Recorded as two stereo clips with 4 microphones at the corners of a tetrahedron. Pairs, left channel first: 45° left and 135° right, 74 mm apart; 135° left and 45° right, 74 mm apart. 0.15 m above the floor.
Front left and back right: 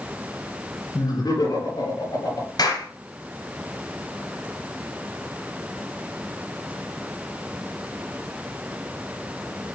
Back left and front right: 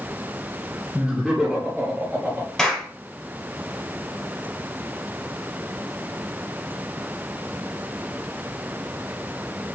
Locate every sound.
0.9 s laughter: 45° left, 3.5 m; by 2.5 s 15° left, 3 m
2.6 s a clap: 50° left, 3 m